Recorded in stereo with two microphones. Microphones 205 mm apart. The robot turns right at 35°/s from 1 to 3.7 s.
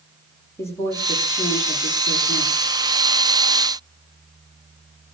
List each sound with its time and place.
0.6 s a woman speaking: 15° left, 8 m; by 2.8 s 75° left, 8 m